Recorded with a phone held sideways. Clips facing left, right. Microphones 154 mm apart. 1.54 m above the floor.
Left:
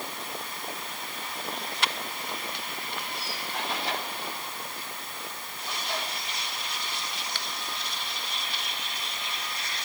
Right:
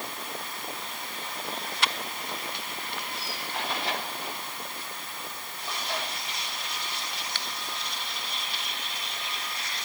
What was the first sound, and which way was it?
Only background noise.